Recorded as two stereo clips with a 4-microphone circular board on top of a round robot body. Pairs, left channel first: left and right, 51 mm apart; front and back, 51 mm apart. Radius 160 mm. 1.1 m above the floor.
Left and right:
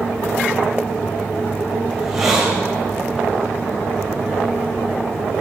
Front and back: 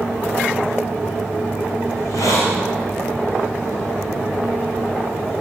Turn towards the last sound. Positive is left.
turn(degrees=-10)